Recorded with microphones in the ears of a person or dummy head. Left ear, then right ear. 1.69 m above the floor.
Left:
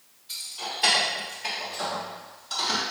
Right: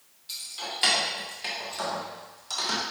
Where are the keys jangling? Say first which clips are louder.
Left 1 dB; 35° right (ahead or behind), 1.6 m; by 2.8 s 50° right (ahead or behind), 1.3 m.